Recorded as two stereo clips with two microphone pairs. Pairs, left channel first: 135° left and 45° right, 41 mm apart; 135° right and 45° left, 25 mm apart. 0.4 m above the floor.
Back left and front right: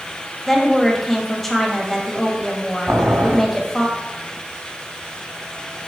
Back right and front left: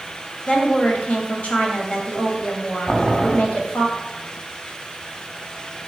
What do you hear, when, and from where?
0.5 s a woman speaking: 140° right, 1.9 m
2.9 s boiling: 60° right, 1.8 m